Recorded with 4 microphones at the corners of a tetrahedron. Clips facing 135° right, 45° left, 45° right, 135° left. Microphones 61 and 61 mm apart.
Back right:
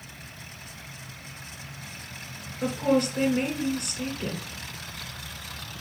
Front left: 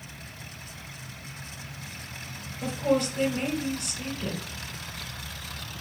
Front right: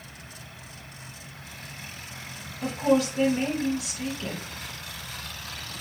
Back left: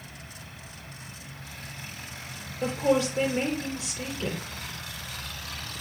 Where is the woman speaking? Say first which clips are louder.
Back right 2 dB, front right 1 dB; 170° right, 2 m.